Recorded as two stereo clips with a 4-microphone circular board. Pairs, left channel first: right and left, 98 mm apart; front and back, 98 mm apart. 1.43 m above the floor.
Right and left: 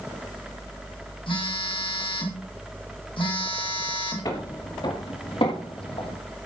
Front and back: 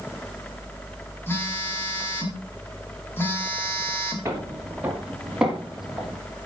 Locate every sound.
1.3 s a phone buzzing: 65° right, 3 m
4.2 s footsteps: 125° right, 2.5 m; by 6.2 s 90° right, 3.5 m